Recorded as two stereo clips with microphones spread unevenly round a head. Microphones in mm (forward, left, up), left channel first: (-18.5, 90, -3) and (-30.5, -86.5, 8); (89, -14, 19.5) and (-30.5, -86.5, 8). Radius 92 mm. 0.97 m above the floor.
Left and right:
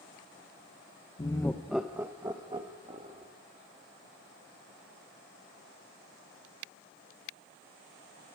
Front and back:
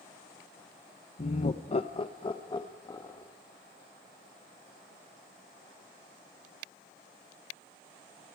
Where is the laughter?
45° left, 0.8 m; by 3.3 s 35° right, 2 m.